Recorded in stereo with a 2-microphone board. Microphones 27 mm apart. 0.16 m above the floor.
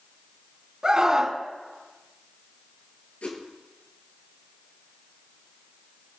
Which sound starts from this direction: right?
A scream, at 0.8 s.